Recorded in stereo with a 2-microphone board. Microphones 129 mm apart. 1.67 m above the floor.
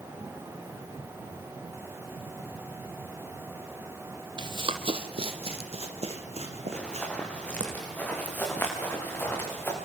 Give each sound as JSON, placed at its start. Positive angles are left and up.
{"t": 4.4, "sound": "running footsteps", "side_deg": -35, "distance_m": 2.0}
{"t": 6.7, "sound": "running footsteps", "side_deg": 5, "distance_m": 6.5}